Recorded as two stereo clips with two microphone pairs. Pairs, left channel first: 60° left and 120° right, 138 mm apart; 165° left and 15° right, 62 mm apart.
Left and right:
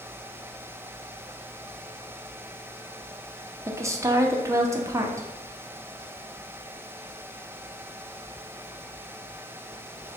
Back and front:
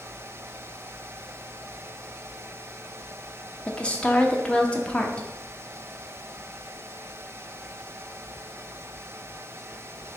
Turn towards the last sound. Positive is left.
turn(degrees=-160)